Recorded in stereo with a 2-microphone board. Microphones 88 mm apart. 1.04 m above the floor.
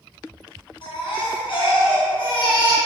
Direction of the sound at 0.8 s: 65° left (ahead or behind).